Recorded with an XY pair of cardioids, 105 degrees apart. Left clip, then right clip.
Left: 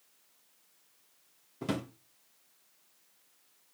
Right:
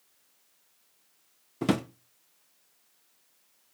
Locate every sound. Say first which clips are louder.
1.6 s a drawer: right 7 dB; 55° right, 0.8 m